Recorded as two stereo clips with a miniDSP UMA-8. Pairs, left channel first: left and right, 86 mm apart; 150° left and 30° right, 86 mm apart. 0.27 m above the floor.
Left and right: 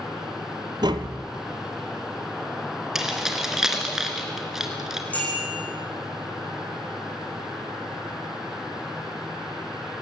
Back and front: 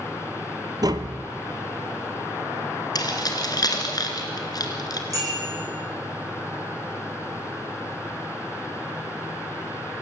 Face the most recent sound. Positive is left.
turn(degrees=20)